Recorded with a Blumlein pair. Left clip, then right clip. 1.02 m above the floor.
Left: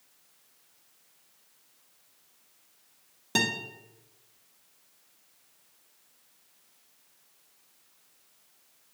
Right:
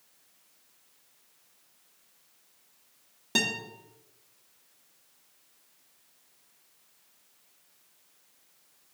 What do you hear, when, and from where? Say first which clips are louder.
3.4 s a guitar: even; 5° left, 1.5 m